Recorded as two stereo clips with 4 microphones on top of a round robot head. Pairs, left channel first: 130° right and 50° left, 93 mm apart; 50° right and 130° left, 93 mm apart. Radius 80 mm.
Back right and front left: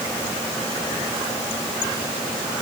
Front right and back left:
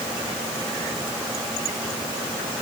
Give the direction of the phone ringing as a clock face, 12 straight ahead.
I don't hear a phone ringing.